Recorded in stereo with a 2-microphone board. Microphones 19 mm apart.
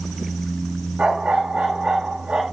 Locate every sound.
1.0 s a dog barking: 65° right (ahead or behind), 7.5 m